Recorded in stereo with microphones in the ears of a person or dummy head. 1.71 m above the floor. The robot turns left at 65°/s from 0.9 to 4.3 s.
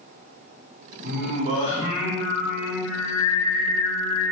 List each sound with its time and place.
1.0 s singing: 115° right, 3.5 m; by 4.3 s 30° left, 3.5 m